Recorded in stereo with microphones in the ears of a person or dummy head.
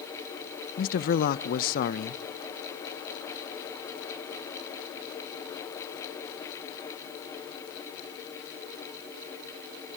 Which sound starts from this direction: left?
A man speaking, at 0.8 s.